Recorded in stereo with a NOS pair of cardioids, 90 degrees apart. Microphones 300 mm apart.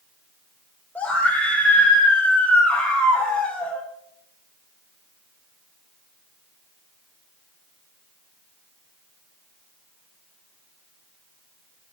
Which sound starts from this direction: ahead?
A scream, at 0.9 s.